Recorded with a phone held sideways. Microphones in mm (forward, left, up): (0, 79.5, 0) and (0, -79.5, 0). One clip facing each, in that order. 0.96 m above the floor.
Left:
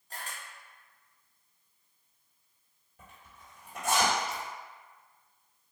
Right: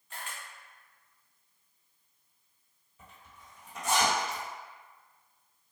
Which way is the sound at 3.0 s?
60° left (ahead or behind).